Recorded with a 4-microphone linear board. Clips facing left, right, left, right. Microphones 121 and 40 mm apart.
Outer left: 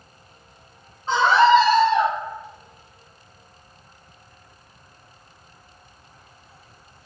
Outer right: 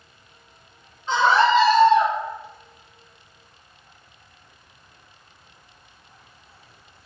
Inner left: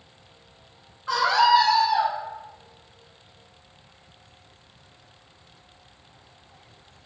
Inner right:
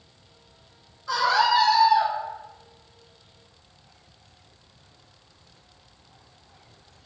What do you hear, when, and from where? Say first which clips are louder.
1.1 s a scream: outer left 2 dB, inner left 2 dB; 35° left (ahead or behind), 0.6 m; by 2.1 s 65° left (ahead or behind), 1.1 m